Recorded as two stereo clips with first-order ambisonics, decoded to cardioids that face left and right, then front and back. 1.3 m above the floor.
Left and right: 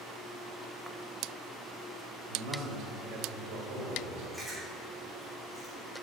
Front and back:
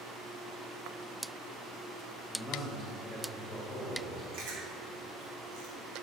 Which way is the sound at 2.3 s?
75° right.